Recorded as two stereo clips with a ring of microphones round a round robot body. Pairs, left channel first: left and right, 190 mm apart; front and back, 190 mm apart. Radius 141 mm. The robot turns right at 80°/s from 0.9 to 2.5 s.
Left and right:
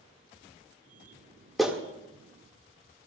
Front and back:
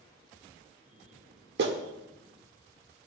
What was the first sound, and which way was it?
A clap, straight behind.